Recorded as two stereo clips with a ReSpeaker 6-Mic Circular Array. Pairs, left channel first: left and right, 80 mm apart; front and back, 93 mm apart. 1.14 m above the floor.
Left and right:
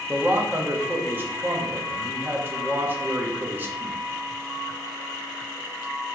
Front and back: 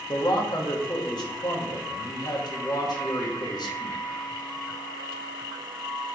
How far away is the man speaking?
About 1.0 m.